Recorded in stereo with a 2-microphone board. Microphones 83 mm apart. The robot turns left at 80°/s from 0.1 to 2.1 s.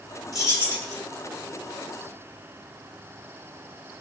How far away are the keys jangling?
About 2 m.